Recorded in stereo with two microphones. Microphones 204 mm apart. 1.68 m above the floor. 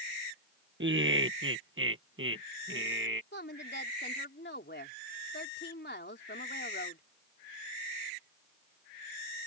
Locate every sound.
0.8 s laughter: 65° right (ahead or behind)
3.3 s a woman speaking: 60° left (ahead or behind)